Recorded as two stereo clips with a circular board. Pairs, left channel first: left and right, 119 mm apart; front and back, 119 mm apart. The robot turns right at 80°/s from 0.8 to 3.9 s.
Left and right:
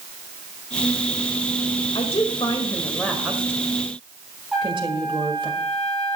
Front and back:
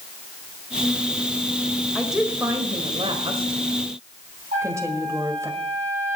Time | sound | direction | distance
1.9 | a woman speaking | 80° left | 1.7 m
4.5 | a trumpet | straight behind | 7.5 m